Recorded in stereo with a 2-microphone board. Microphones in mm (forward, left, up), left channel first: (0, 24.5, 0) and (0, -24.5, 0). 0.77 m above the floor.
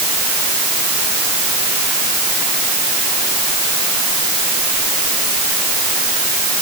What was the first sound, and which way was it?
Only background noise.